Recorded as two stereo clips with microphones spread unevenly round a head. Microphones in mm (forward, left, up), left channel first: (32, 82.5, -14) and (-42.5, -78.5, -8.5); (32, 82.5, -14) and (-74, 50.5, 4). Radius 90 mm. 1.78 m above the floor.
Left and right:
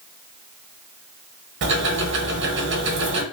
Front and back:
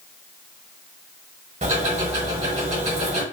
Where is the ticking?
130° right, 0.9 m.